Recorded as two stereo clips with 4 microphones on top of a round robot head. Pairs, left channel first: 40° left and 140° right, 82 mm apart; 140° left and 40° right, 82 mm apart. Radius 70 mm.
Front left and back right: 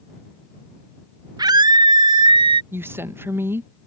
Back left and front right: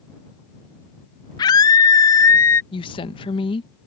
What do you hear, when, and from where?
1.4 s a scream: straight behind; by 2.6 s 155° right
2.7 s a woman speaking: 155° left